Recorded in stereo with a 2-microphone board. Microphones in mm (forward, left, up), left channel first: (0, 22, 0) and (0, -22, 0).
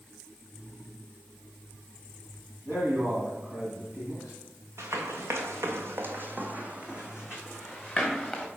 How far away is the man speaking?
About 1.8 m.